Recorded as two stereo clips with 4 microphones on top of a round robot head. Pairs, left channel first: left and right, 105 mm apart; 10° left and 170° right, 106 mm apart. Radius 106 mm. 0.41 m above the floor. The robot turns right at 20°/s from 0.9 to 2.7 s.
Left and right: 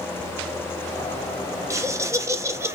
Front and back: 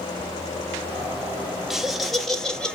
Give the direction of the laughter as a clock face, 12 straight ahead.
3 o'clock.